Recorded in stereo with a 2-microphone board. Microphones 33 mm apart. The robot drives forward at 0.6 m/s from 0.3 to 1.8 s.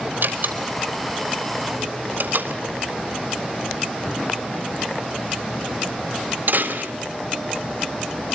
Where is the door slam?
75° right (ahead or behind), 3.5 m; by 6.9 s 65° right (ahead or behind), 4 m.